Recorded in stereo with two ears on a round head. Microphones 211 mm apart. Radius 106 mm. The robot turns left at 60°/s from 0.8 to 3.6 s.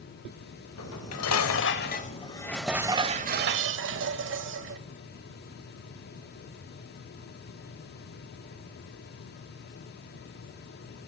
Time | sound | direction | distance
0.8 | dishes clattering | 110° left | 1.1 m